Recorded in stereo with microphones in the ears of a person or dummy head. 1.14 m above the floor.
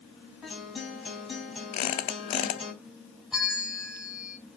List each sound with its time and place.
0.4 s a guitar: centre (ahead or behind), 3.5 m
1.7 s a squeak: 30° left (ahead or behind), 0.5 m
3.3 s a bell: centre (ahead or behind), 0.6 m